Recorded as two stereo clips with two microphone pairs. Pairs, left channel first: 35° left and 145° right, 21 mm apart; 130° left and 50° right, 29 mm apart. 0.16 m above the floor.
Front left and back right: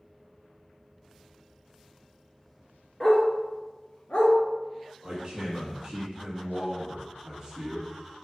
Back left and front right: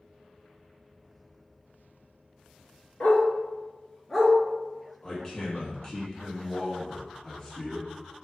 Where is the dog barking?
110° left, 1.3 m; by 4.3 s 40° left, 1.0 m.